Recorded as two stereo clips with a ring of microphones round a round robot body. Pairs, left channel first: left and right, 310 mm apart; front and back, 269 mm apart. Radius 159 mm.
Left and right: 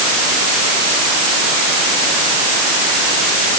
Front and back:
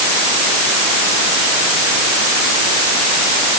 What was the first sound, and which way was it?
Only background noise.